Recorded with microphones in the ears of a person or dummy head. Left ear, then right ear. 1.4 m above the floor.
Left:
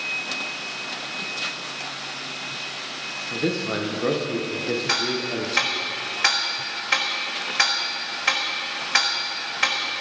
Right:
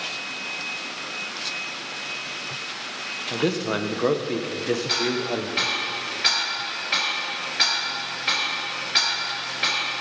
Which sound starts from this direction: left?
Ticking, at 4.9 s.